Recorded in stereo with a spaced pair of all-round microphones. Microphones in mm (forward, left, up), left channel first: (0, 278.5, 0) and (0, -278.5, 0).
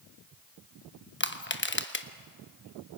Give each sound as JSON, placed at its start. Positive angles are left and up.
{"t": 1.2, "sound": "crushing", "side_deg": 20, "distance_m": 1.0}